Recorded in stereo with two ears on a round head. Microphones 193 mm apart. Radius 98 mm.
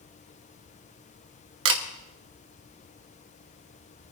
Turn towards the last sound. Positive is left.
turn(degrees=-60)  # may be behind; listen again after turning